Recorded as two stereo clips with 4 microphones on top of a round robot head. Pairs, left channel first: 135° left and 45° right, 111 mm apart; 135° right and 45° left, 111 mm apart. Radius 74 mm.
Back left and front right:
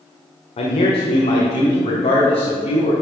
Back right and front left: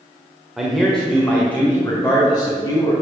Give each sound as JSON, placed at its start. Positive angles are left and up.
{"t": 0.6, "sound": "a man speaking", "azimuth_deg": 130, "distance_m": 1.7}